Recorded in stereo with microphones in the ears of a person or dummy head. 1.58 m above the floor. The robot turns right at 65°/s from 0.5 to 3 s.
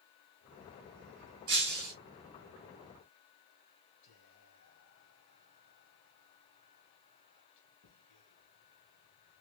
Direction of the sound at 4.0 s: 80° left.